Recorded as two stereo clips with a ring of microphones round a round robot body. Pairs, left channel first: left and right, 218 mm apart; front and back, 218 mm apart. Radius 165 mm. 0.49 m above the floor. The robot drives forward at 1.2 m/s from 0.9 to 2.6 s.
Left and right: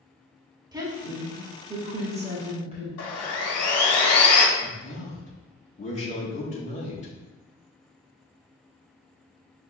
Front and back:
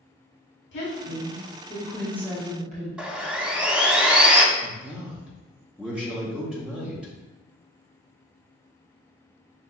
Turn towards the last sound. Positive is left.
turn(degrees=100)